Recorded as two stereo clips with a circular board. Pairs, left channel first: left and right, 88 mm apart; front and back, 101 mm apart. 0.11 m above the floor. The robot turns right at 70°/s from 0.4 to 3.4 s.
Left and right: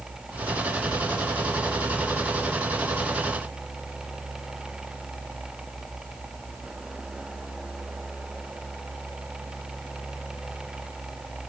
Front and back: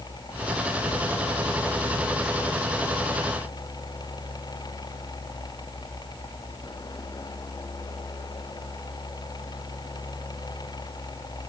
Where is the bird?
No bird in this recording.